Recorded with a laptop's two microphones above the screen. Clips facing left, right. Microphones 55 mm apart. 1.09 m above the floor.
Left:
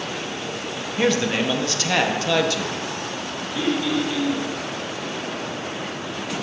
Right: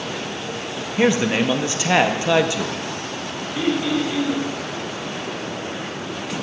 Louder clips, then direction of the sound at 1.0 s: Right 3 dB; 20° right (ahead or behind).